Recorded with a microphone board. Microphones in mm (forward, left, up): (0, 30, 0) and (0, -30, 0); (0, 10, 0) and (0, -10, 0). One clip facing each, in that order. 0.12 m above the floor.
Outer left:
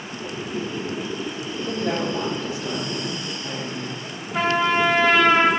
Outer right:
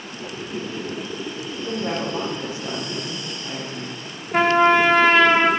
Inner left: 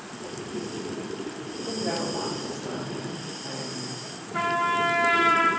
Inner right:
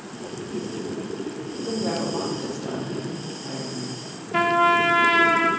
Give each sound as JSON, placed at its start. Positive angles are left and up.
{"t": 1.5, "sound": "a woman speaking", "side_deg": -35, "distance_m": 4.5}
{"t": 4.3, "sound": "a trumpet", "side_deg": -65, "distance_m": 2.5}